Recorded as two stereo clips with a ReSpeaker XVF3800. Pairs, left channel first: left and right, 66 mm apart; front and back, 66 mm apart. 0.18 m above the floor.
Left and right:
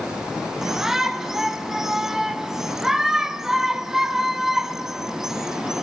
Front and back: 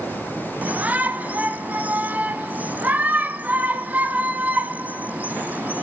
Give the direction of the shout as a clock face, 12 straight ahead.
6 o'clock.